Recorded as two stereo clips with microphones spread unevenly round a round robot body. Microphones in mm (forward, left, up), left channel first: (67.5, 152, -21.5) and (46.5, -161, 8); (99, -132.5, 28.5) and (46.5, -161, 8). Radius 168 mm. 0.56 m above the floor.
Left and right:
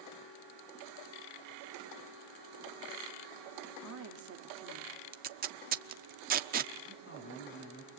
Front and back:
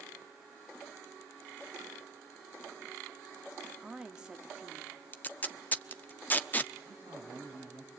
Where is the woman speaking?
110° right, 1.4 m.